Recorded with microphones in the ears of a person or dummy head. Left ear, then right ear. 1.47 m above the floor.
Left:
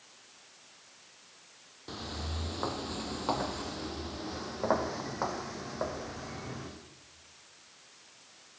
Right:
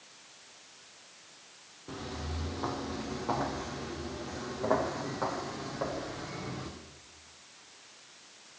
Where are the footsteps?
40° left (ahead or behind), 2.5 m; by 6.7 s 25° left (ahead or behind), 4.5 m.